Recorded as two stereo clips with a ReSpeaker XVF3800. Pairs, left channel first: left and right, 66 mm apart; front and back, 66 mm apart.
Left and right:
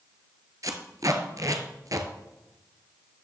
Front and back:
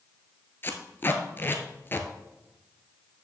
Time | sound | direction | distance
0.6 | tape being pulled | 55° right | 1.0 m